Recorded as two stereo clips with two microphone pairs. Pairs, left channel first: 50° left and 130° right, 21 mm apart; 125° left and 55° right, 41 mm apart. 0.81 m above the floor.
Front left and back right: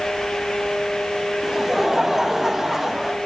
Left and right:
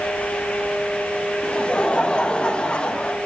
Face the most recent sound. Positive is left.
turn(degrees=170)